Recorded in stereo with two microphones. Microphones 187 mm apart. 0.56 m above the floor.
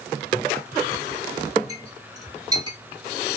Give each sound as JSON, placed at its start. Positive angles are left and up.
{"t": 1.7, "sound": "a clink", "side_deg": -20, "distance_m": 1.2}